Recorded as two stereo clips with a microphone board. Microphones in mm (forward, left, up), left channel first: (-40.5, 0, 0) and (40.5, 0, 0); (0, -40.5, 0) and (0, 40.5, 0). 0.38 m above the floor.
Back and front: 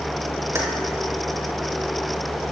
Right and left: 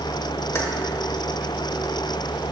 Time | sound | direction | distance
0.6 | keys jangling | 40° right | 1.0 m